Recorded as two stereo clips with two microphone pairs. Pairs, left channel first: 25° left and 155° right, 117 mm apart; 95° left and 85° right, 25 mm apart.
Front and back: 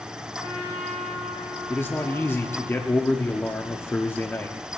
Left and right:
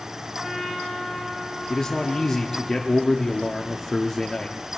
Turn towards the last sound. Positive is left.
turn(degrees=55)